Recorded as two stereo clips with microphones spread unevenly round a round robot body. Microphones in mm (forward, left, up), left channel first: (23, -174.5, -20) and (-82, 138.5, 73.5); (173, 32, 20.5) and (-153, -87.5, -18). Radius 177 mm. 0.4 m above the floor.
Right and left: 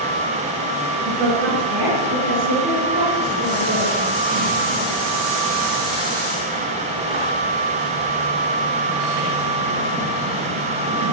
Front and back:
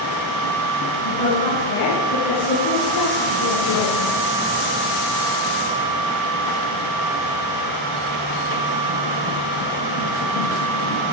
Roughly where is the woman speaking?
Ahead left.